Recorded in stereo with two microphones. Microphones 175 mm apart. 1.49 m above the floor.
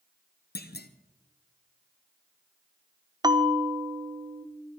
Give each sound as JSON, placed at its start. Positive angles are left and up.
{"t": 0.6, "sound": "a clunk", "side_deg": 70, "distance_m": 0.8}
{"t": 3.2, "sound": "a bell", "side_deg": -25, "distance_m": 0.7}